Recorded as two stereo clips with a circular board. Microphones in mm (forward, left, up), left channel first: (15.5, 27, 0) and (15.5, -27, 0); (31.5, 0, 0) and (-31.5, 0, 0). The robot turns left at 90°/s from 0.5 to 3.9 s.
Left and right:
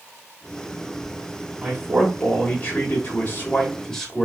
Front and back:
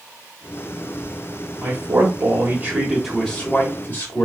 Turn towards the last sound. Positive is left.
turn(degrees=20)